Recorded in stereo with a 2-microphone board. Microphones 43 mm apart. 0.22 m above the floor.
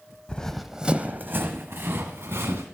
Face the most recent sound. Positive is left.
turn(degrees=-75)  # may be behind; listen again after turning